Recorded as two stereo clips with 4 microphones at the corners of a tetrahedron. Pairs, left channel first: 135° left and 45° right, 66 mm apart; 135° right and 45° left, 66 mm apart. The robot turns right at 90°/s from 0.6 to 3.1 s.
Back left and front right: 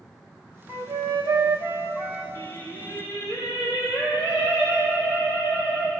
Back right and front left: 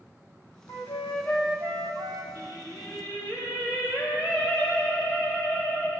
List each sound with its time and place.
0.7 s a flute: 100° right, 1.1 m; by 2.2 s 45° left, 1.1 m
2.4 s singing: 75° left, 3 m; by 5.9 s 145° left, 3 m